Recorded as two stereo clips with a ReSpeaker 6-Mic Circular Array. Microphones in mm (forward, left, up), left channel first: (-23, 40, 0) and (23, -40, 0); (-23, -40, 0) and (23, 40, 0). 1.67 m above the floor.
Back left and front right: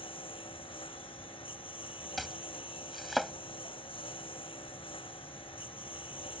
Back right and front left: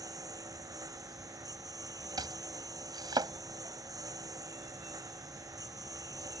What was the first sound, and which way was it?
A lawn mower, 110° left.